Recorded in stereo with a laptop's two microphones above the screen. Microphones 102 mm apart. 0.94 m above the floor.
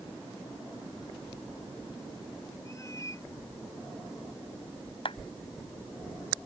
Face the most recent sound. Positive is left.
turn(degrees=55)  # may be behind; listen again after turning